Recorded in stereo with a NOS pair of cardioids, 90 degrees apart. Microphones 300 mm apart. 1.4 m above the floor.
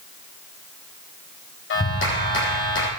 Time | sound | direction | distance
1.7 | a clap | 45° left | 5 m